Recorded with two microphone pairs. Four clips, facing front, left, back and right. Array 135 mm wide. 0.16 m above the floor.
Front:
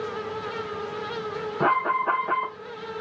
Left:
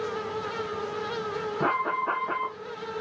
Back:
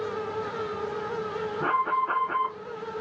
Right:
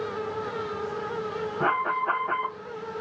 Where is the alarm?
15° right, 4.5 m.